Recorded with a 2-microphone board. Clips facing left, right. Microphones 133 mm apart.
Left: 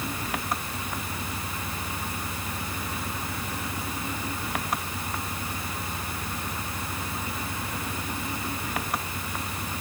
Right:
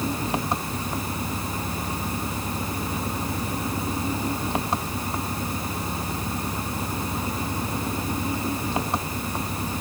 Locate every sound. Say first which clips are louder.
0.0 s an engine running: right 6 dB; 25° right (ahead or behind)